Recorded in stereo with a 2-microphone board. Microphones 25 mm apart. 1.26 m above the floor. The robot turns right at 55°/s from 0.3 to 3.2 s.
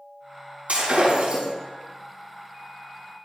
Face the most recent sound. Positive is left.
turn(degrees=55)